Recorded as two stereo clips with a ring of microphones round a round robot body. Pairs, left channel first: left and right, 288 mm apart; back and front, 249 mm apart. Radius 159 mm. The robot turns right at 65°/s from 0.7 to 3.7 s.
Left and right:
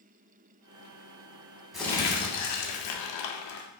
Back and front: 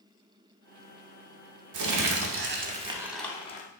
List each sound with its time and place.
1.7 s crumpling: straight ahead, 0.5 m; by 3.7 s 125° left, 0.5 m